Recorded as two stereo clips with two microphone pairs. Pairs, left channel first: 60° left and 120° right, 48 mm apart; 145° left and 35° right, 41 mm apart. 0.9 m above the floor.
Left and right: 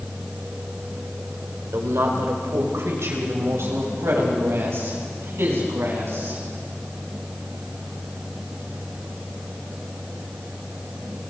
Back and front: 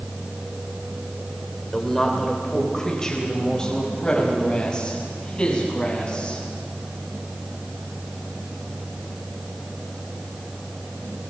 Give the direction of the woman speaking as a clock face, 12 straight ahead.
4 o'clock.